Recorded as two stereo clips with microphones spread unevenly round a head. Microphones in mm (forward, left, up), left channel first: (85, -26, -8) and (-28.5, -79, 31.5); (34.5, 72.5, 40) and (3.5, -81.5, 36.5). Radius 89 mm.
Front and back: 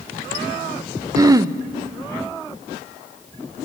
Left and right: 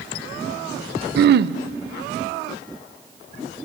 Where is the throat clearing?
85° right, 0.5 m.